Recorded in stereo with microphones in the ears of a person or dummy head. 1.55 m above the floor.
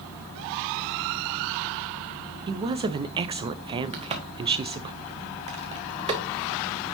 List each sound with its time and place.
2.5 s a woman speaking: 25° right (ahead or behind), 0.5 m
3.9 s a crack: 30° right (ahead or behind), 1.2 m